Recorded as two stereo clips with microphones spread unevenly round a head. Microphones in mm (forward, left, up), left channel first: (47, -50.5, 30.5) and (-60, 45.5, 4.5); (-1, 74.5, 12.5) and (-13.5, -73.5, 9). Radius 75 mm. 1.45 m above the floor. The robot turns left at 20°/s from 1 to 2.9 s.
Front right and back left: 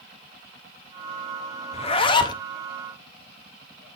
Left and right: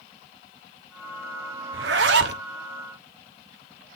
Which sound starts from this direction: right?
A zipper, at 1.7 s.